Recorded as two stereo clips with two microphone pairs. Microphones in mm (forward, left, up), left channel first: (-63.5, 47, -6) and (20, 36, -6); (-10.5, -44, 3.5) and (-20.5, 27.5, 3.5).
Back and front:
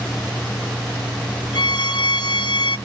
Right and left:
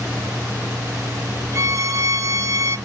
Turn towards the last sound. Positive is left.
turn(degrees=145)